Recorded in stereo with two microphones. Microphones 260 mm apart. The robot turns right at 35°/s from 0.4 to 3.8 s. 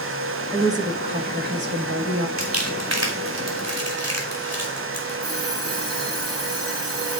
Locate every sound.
0.5 s a woman speaking: 170° right, 1.7 m; by 2.3 s 110° right, 1.7 m
2.4 s crumpling: 55° right (ahead or behind), 3 m; by 5.2 s 70° right (ahead or behind), 3 m
5.2 s an alarm clock: 40° right (ahead or behind), 5.5 m